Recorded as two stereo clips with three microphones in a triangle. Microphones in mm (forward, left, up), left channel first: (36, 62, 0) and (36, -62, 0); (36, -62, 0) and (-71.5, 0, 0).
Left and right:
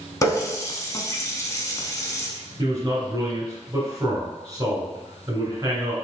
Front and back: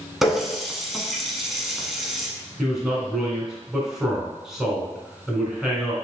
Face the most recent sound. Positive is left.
turn(degrees=-125)